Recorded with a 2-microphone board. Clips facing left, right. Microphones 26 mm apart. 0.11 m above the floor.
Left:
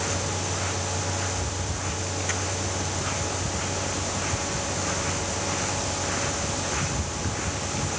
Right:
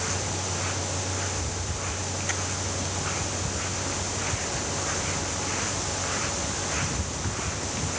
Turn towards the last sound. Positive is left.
No sound to turn to.